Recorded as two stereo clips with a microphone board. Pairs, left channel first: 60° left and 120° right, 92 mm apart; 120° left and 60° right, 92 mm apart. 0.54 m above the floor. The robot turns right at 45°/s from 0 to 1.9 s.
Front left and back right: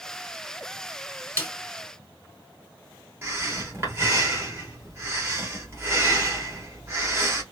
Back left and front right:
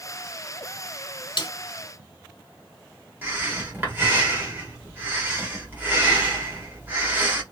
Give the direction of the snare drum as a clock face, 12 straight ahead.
8 o'clock.